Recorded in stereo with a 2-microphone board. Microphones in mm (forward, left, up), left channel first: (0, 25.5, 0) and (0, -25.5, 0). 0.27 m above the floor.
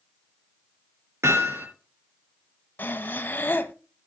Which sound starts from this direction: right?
Hammering, at 1.2 s.